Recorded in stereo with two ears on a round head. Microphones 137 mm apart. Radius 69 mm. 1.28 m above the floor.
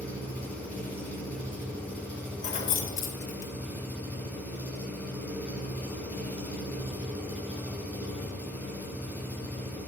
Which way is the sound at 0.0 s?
10° left (ahead or behind).